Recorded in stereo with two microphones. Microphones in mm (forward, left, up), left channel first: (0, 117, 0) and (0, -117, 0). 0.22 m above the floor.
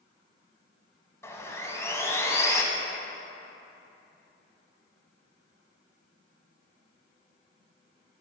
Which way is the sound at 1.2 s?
10° left (ahead or behind).